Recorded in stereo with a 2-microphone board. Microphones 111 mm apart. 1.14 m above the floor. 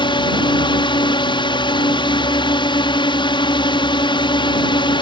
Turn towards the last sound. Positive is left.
turn(degrees=45)  # may be behind; listen again after turning